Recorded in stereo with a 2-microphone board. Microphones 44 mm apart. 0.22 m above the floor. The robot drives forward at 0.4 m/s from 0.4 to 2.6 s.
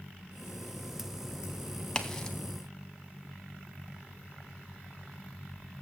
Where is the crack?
15° left (ahead or behind), 1.0 m.